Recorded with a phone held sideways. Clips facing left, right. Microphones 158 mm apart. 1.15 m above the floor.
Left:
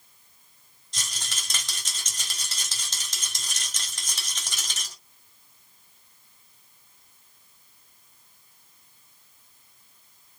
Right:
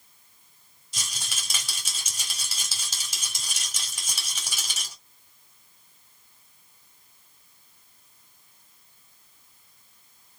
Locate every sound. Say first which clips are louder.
0.9 s a rattle: even; 10° right (ahead or behind), 2.5 m